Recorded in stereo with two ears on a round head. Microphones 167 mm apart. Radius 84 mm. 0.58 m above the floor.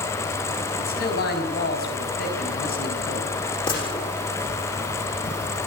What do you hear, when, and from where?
0.8 s a man speaking: 55° left (ahead or behind), 5 m
3.7 s a gunshot: 25° left (ahead or behind), 7 m